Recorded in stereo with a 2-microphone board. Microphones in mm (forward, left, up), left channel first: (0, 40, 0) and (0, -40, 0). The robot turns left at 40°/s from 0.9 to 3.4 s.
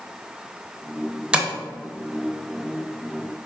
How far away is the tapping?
About 0.6 m.